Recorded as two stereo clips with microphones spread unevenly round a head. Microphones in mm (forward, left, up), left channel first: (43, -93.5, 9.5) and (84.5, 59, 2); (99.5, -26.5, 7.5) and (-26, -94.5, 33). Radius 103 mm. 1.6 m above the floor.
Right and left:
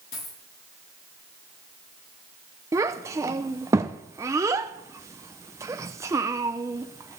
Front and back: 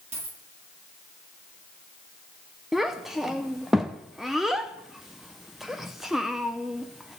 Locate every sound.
0.1 s a dropped coin: 110° right, 9 m
2.7 s a child speaking: 140° left, 0.5 m